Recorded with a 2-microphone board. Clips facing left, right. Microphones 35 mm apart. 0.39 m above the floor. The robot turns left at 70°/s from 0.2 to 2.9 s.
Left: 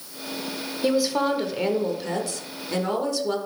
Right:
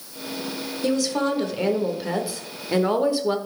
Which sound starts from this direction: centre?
A woman speaking, at 0.8 s.